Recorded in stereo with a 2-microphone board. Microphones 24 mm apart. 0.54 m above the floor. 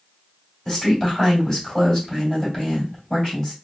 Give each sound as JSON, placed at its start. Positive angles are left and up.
{"t": 0.7, "sound": "a woman speaking", "side_deg": 20, "distance_m": 2.5}